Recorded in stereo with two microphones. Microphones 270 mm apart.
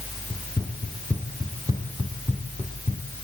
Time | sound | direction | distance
0.3 | running footsteps | centre (ahead or behind) | 3.5 m